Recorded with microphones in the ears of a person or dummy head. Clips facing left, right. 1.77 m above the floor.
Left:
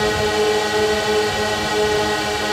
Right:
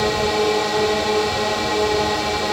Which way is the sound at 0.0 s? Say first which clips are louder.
Left 1 dB; 10° left (ahead or behind).